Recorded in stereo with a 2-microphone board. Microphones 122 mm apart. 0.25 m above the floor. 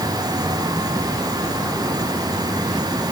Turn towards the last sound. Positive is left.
No sound to turn to.